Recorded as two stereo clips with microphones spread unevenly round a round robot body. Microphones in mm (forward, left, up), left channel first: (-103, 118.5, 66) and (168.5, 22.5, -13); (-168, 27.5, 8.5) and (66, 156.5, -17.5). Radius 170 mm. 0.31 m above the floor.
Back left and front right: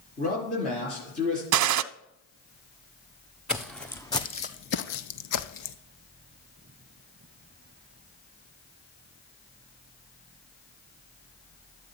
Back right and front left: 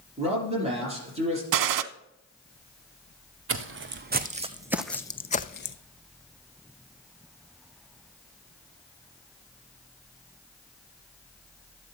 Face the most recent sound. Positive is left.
turn(degrees=165)